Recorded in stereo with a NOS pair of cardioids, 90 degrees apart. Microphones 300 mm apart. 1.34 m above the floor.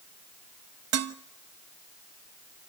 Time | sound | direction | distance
0.9 | dishes clattering | 55° right | 1.2 m